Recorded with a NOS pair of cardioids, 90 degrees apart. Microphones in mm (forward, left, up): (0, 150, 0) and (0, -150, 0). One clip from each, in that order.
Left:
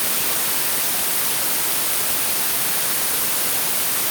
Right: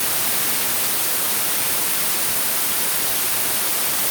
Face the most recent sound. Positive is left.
No sound to turn to.